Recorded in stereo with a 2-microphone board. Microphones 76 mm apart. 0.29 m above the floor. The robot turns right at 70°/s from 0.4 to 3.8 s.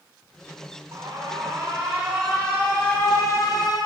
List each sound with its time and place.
0.9 s an alarm: 100° right, 2.5 m; by 3.8 s 100° left, 2.5 m